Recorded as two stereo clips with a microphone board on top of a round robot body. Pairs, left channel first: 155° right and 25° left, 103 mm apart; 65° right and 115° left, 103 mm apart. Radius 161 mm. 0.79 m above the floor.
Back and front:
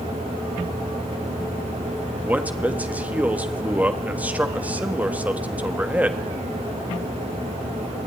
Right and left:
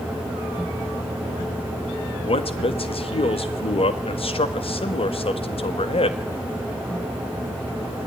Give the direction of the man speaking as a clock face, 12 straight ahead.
2 o'clock.